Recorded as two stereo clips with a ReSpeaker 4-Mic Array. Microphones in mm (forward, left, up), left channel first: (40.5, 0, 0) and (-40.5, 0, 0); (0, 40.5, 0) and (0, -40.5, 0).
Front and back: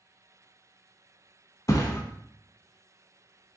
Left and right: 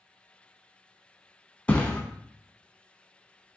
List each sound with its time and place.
1.7 s a thud: 25° left, 0.7 m